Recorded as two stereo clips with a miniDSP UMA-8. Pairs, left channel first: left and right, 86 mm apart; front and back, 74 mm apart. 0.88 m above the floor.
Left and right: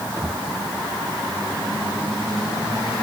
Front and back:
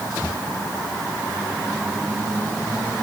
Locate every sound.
Only background noise.